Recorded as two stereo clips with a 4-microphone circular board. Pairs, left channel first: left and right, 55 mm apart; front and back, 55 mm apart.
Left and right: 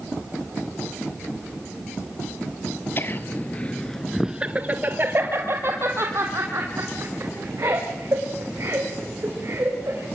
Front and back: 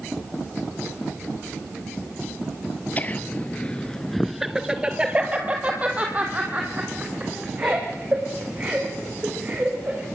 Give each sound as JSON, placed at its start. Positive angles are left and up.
{"t": 3.0, "sound": "laughter", "azimuth_deg": 55, "distance_m": 1.9}